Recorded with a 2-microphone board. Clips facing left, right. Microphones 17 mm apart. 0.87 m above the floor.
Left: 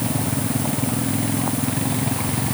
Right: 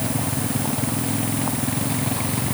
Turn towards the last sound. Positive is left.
No sound to turn to.